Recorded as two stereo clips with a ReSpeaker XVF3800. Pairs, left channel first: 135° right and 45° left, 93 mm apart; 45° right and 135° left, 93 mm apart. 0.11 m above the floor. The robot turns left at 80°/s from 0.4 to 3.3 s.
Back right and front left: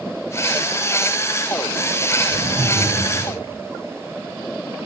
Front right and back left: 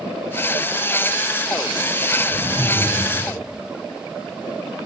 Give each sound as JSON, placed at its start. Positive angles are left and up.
{"t": 2.3, "sound": "laughter", "azimuth_deg": 90, "distance_m": 3.0}